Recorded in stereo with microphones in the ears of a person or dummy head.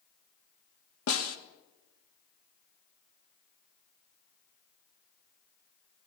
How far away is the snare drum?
About 2.5 m.